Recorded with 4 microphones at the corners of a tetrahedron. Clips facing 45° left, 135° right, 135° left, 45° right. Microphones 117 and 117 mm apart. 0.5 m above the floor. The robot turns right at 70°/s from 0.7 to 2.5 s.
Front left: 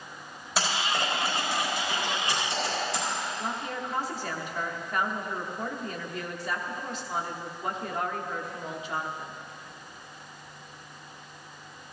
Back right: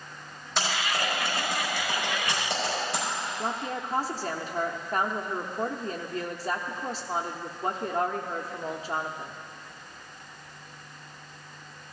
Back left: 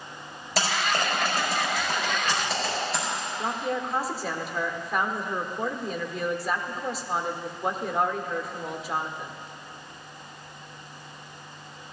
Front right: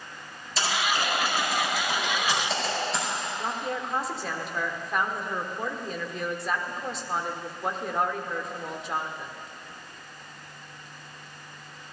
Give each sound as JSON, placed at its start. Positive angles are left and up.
{"t": 0.6, "sound": "typing on a keyboard", "azimuth_deg": 125, "distance_m": 5.5}
{"t": 3.4, "sound": "a woman speaking", "azimuth_deg": -140, "distance_m": 1.0}